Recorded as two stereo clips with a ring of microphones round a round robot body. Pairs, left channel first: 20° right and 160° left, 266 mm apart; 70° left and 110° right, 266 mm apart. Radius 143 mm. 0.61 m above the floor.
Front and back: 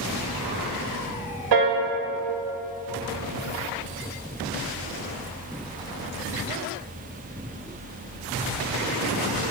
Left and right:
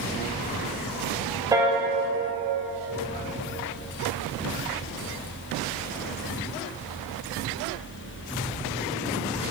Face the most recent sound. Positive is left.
turn(degrees=170)